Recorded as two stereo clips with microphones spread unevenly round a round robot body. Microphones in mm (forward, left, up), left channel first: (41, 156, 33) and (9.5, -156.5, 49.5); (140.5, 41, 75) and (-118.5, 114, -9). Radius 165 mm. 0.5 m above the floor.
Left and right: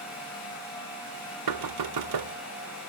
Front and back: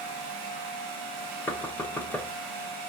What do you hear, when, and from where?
1.5 s knocking: 110° right, 1.3 m